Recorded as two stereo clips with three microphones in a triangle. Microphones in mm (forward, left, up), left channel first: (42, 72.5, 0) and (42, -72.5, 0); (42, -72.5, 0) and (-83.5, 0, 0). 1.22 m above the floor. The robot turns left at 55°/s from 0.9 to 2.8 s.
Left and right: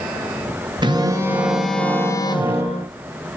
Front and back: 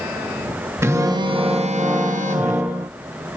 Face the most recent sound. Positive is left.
turn(degrees=115)